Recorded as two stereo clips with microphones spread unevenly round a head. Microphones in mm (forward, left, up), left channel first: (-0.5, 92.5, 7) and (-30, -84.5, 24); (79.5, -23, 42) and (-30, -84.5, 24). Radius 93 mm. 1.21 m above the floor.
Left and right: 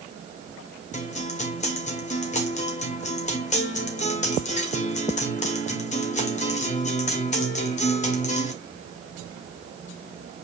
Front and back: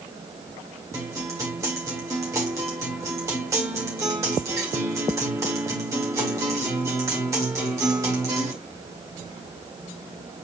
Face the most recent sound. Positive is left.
turn(degrees=130)